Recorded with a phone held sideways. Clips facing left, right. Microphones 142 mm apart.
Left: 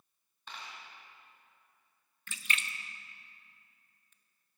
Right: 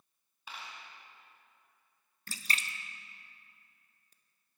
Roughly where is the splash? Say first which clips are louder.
Even; right.